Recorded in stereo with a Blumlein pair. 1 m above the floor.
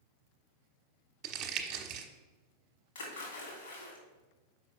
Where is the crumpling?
40° right, 1.0 m.